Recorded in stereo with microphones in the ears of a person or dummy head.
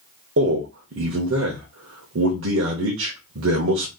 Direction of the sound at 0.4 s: 85° right.